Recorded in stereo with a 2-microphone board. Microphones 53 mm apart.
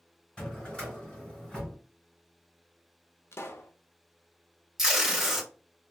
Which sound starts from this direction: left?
A pop, at 3.3 s.